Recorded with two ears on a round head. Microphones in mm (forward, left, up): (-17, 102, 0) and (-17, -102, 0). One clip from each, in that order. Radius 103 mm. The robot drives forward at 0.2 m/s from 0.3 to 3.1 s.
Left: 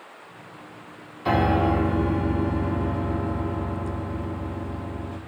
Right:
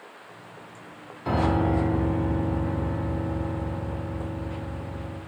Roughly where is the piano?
Left.